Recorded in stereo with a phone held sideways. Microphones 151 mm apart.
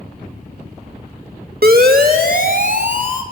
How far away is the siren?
About 2.5 m.